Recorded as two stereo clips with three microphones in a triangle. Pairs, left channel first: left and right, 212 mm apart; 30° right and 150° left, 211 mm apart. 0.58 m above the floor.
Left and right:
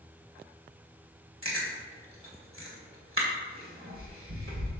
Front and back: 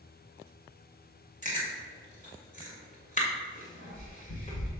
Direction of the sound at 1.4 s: 80° right.